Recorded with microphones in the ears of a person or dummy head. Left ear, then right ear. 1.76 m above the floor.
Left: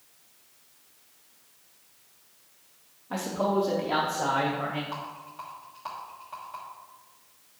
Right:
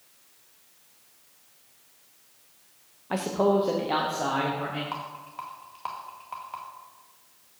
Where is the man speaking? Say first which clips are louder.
Right 4 dB; 45° right (ahead or behind), 0.6 m; by 4.8 s 5° left (ahead or behind), 1.3 m.